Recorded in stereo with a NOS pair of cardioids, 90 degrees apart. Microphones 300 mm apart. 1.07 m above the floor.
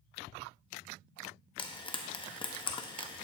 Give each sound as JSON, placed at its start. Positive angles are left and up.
{"t": 1.6, "sound": "frying", "azimuth_deg": 15, "distance_m": 0.8}